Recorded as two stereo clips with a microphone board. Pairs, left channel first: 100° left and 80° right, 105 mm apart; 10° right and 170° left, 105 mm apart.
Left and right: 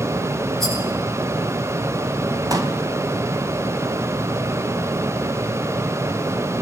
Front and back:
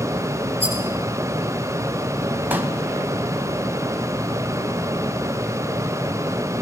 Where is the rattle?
15° left, 9.5 m.